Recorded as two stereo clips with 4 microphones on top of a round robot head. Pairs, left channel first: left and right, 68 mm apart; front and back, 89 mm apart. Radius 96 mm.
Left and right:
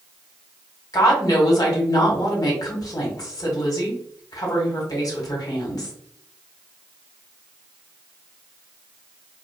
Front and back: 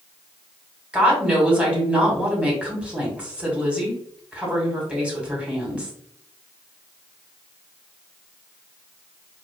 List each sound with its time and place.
0.9 s a woman speaking: 105° left, 1.9 m